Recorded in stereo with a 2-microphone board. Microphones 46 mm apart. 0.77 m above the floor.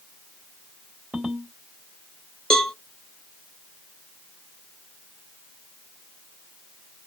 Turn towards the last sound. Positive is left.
turn(degrees=15)  # may be behind; listen again after turning